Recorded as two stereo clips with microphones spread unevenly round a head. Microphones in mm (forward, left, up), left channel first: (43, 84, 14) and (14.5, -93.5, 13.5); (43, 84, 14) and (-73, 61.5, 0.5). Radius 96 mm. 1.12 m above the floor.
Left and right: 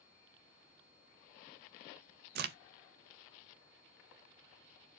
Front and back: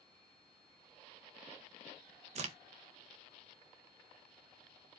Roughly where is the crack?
Behind right.